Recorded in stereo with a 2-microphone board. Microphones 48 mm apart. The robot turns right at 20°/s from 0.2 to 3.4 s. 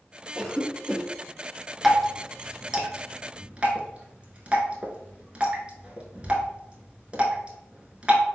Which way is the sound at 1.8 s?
Centre (ahead or behind).